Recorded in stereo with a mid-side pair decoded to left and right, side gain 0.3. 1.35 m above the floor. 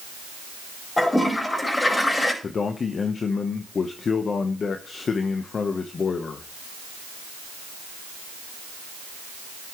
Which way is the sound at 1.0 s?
30° left.